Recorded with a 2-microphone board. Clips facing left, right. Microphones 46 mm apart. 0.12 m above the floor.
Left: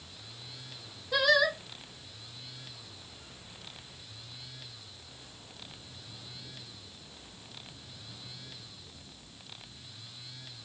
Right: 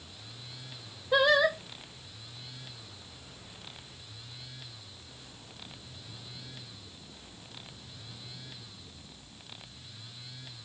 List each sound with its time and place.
1.1 s singing: 25° right (ahead or behind), 0.7 m